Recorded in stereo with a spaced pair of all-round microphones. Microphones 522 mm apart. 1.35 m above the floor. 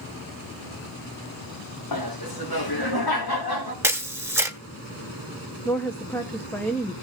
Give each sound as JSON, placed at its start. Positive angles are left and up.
{"t": 1.9, "sound": "laughter", "side_deg": 40, "distance_m": 1.1}
{"t": 3.8, "sound": "a camera shutter", "side_deg": -5, "distance_m": 1.0}
{"t": 5.7, "sound": "a woman speaking", "side_deg": 5, "distance_m": 0.9}